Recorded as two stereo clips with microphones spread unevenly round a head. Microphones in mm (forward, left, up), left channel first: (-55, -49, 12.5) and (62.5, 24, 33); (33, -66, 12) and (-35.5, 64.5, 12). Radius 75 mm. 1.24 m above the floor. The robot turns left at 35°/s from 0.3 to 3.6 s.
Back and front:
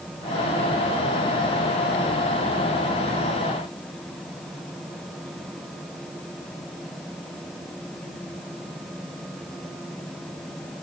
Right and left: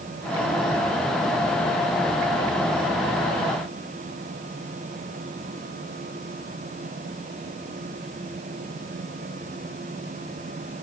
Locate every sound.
Only background noise.